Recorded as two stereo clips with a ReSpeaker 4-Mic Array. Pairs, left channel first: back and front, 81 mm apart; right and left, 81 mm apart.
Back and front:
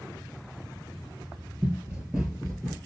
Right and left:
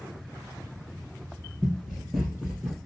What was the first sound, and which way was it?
Running footsteps, 5° right.